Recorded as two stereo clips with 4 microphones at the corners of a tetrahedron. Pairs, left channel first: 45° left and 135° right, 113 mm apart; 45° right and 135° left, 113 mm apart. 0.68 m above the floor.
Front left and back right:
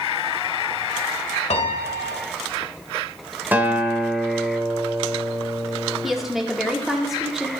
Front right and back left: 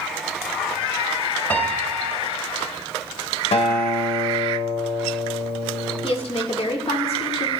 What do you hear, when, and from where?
1.5 s a piano: 30° left, 1.4 m
3.5 s a guitar: 60° right, 1.8 m
6.0 s a woman speaking: 50° right, 2.0 m